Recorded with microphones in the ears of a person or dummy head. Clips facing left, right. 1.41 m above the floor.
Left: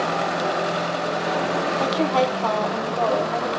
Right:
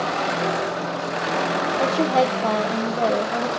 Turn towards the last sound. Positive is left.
turn(degrees=-5)  # may be behind; listen again after turning